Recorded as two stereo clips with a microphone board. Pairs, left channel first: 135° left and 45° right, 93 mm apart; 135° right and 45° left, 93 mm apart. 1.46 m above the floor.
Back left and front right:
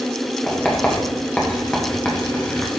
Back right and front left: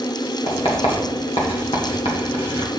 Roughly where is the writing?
Behind right.